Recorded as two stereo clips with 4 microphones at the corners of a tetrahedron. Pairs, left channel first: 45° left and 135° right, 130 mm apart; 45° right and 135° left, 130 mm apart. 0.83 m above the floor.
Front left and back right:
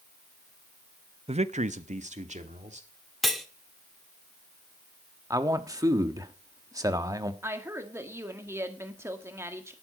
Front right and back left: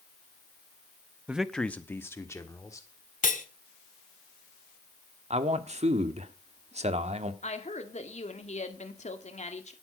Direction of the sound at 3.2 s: 45° right.